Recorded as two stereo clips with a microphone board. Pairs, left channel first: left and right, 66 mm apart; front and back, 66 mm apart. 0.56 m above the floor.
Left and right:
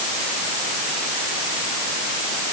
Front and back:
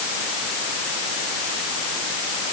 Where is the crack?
No crack in this recording.